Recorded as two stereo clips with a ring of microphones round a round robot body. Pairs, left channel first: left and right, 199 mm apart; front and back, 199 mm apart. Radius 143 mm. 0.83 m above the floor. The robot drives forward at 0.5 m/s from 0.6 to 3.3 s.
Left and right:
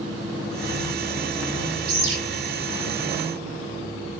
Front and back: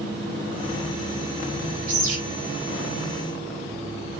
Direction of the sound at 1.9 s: 120° right.